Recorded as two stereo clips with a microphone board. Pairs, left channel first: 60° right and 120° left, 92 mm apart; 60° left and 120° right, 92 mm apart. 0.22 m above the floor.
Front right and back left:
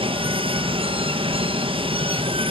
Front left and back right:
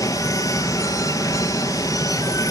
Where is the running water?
110° left, 1.5 m.